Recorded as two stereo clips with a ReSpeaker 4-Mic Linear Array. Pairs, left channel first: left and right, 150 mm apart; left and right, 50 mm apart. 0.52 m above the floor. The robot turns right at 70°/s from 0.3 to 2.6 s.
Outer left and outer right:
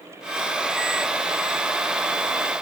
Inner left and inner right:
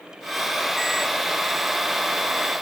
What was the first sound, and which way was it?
Only background noise.